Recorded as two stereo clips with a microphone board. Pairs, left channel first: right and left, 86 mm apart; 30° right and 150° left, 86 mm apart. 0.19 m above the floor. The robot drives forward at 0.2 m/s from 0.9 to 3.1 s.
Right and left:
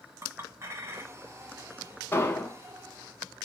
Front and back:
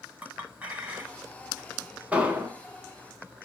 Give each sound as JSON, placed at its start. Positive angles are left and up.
{"t": 0.2, "sound": "a clink", "azimuth_deg": 95, "distance_m": 0.7}
{"t": 2.1, "sound": "an explosion", "azimuth_deg": -145, "distance_m": 0.7}